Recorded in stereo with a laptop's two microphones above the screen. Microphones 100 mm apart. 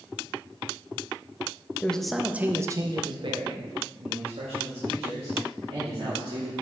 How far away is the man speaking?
About 0.7 m.